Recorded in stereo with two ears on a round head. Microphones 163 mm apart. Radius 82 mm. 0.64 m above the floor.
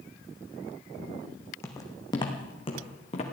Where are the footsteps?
15° left (ahead or behind), 2 m; by 3.2 s 35° left (ahead or behind), 3.5 m.